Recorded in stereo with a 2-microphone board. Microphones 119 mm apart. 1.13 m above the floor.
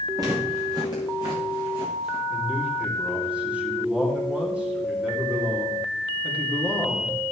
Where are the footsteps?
35° right (ahead or behind), 4.5 m; by 2.2 s 55° right (ahead or behind), 4 m.